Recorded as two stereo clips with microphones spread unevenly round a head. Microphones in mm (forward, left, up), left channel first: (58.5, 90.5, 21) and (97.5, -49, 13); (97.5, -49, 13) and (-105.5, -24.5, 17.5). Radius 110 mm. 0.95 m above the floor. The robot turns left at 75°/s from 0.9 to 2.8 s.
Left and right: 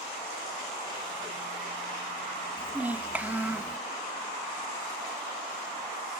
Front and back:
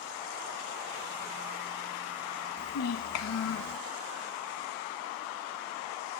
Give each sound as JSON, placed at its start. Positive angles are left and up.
{"t": 2.6, "sound": "a child speaking", "azimuth_deg": 25, "distance_m": 0.5}